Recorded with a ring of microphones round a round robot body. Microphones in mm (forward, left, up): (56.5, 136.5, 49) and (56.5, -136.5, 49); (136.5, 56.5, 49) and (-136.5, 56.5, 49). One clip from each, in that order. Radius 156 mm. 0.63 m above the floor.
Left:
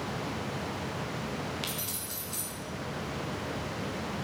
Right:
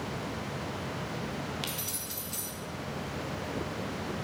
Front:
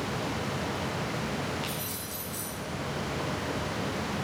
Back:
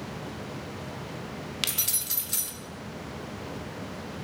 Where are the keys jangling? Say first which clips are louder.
Even, back 5 dB; straight behind, 0.9 m.